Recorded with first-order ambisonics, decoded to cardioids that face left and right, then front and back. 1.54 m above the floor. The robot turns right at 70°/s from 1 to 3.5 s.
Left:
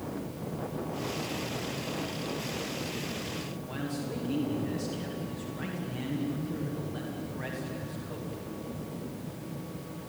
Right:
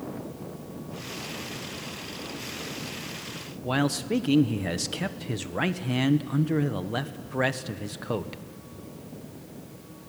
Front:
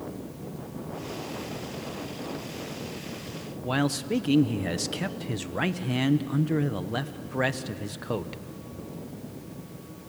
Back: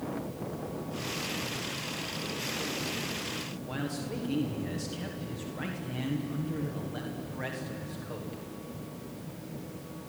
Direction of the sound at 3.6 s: 50° right.